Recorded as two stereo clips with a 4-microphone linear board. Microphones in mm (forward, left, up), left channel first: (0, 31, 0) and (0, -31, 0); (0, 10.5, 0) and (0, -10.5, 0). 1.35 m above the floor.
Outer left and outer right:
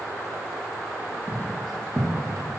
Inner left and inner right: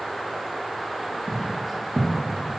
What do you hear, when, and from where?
1.3 s footsteps: 5° right (ahead or behind), 3 m